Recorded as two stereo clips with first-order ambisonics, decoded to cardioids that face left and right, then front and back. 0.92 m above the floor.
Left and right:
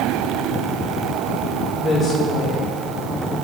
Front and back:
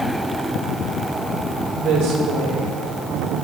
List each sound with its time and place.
1.7 s a woman speaking: 165° left, 3.5 m